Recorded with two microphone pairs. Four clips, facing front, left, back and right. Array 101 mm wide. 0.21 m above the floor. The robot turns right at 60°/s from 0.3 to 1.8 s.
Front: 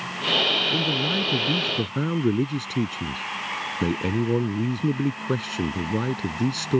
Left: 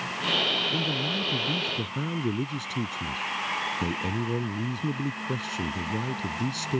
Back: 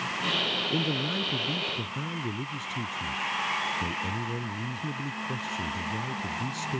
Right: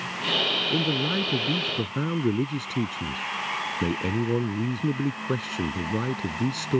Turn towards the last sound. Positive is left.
turn(degrees=-30)